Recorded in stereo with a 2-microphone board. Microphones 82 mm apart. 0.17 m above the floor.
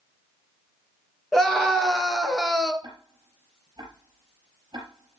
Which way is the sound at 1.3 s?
5° left (ahead or behind).